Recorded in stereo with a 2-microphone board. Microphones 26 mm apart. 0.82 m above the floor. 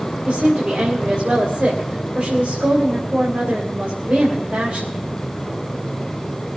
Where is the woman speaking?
75° right (ahead or behind), 3 m.